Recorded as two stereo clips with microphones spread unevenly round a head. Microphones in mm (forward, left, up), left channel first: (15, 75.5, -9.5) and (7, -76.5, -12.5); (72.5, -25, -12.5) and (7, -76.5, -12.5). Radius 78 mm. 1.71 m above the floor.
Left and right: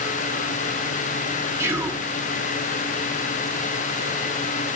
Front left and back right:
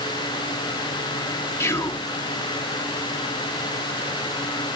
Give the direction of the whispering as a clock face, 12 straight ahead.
1 o'clock.